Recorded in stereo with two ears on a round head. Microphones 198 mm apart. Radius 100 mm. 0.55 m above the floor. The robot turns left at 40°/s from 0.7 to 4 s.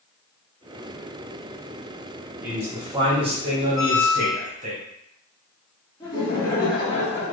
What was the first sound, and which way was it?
A man speaking, 10° right.